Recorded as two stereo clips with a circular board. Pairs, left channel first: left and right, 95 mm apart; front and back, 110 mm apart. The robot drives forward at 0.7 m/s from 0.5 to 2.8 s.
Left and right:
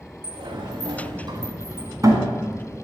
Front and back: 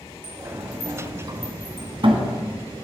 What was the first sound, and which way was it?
A sliding door, 110° right.